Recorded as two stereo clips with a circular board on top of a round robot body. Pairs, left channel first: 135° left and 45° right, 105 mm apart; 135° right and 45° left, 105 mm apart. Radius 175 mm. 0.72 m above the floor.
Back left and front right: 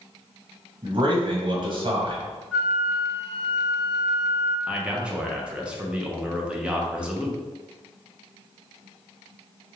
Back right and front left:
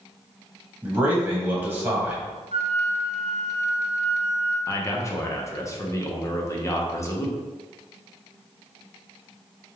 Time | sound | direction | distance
0.8 | a man speaking | 30° right | 1.5 m
2.5 | a flute | 50° left | 1.1 m
4.7 | a man speaking | 115° right | 1.1 m